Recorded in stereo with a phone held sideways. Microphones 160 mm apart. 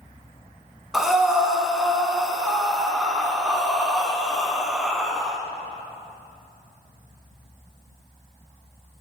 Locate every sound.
0.9 s breathing: centre (ahead or behind), 1.4 m